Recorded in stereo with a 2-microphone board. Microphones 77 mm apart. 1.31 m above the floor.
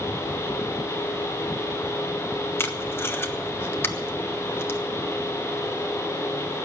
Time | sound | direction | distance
2.6 | tape being pulled | 30° left (ahead or behind) | 1.2 m